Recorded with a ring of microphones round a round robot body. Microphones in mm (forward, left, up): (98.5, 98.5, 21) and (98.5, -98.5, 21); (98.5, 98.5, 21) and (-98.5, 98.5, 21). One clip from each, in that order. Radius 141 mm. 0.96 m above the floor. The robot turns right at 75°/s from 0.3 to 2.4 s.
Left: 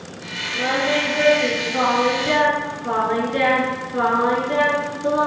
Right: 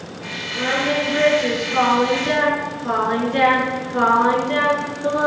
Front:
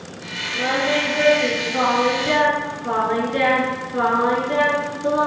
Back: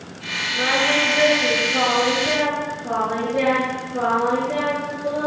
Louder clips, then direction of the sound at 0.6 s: Even, back 1 dB; 165° right.